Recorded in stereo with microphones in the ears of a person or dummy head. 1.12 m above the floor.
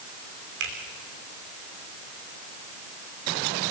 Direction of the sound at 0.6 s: 60° right (ahead or behind).